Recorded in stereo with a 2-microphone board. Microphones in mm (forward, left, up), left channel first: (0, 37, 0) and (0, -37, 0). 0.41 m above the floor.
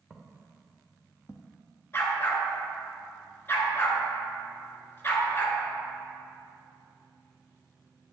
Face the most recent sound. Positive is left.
turn(degrees=30)  # may be behind; listen again after turning